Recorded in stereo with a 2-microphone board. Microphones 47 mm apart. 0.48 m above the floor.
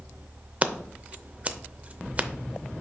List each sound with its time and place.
0.6 s scissors: 30° right (ahead or behind), 0.5 m